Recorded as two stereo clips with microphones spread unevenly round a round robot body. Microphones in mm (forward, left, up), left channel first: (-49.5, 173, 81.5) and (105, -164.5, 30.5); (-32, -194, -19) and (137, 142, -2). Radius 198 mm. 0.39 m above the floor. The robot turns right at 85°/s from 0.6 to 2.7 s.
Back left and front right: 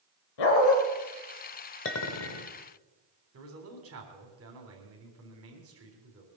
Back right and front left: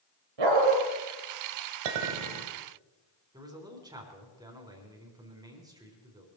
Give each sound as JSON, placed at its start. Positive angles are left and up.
{"t": 0.4, "sound": "a dog barking", "azimuth_deg": 95, "distance_m": 3.5}
{"t": 1.9, "sound": "a clink", "azimuth_deg": 55, "distance_m": 1.7}
{"t": 3.3, "sound": "a man speaking", "azimuth_deg": -15, "distance_m": 3.5}